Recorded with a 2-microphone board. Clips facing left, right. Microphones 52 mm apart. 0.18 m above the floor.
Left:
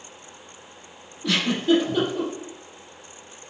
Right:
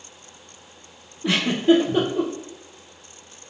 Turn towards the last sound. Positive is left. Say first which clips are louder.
# right 3 dB
turn(degrees=-25)  # may be behind; listen again after turning